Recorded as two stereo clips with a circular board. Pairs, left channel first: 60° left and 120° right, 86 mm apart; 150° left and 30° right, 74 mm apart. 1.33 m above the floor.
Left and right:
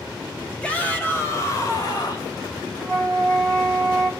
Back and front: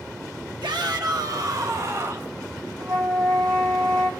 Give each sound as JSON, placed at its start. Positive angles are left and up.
{"t": 0.6, "sound": "a shout", "azimuth_deg": -15, "distance_m": 1.0}
{"t": 2.8, "sound": "a flute", "azimuth_deg": -15, "distance_m": 3.0}